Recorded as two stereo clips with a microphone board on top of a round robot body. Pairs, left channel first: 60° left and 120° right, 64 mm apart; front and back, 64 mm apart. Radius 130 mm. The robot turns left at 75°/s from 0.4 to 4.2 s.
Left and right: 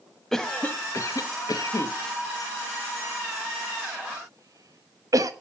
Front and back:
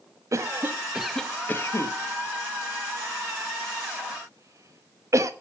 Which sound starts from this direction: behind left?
A cough, at 0.3 s.